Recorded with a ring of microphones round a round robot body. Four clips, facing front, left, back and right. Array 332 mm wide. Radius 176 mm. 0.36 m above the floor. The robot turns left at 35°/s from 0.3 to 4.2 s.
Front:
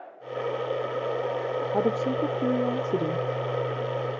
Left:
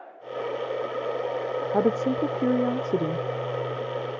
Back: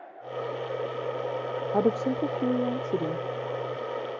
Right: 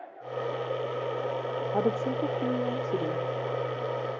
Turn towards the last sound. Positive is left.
turn(degrees=35)